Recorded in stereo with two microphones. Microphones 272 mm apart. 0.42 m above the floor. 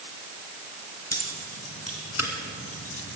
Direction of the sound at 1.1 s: 65° left (ahead or behind).